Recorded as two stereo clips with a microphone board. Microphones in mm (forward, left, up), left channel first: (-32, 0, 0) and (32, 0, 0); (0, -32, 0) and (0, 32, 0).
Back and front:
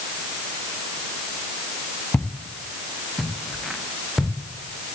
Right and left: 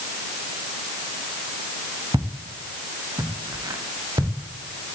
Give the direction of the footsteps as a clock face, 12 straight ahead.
8 o'clock.